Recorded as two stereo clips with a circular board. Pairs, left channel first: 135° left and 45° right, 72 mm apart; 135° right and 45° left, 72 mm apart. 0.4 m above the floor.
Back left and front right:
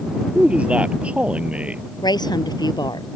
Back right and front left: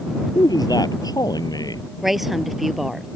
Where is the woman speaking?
130° left.